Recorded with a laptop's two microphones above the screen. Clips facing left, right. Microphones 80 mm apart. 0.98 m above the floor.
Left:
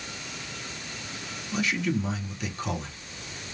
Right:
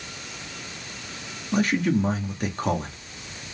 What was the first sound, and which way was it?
A man speaking, 40° right (ahead or behind).